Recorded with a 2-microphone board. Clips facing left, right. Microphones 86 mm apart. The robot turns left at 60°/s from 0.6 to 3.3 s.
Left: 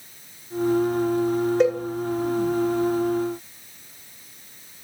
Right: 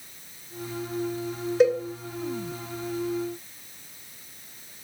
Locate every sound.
1.6 s a cowbell: centre (ahead or behind), 0.5 m; by 1.8 s 10° left (ahead or behind), 0.5 m